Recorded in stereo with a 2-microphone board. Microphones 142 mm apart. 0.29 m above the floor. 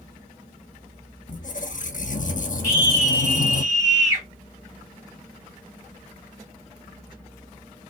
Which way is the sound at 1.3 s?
60° left (ahead or behind).